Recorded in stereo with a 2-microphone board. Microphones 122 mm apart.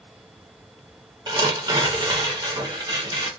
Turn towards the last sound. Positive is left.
turn(degrees=-35)  # may be behind; listen again after turning